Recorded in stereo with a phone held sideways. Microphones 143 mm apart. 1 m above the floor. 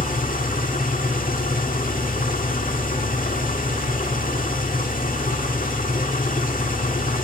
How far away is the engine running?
About 1.7 m.